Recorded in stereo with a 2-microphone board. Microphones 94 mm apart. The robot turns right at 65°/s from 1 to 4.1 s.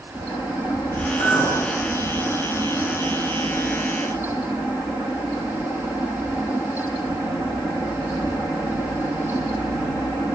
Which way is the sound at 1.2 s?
60° left (ahead or behind).